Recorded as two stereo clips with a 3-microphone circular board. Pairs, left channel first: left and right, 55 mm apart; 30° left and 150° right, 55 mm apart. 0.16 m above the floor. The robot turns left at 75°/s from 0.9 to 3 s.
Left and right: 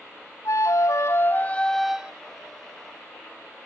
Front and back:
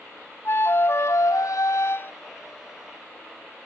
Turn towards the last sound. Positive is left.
turn(degrees=-90)